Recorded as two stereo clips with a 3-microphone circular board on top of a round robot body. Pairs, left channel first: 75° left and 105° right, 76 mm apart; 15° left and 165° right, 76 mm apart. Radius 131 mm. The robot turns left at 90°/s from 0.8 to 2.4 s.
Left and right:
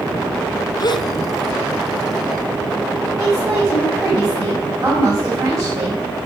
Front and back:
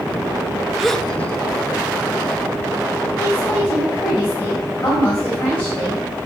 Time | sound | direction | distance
0.8 | a gasp | 110° left | 0.7 m
3.2 | a woman speaking | 55° right | 5 m